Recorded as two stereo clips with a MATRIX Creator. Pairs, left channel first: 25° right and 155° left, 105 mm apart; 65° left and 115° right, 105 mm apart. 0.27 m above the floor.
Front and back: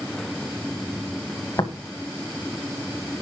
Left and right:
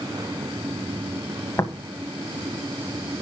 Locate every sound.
1.6 s tapping: 15° left, 1.9 m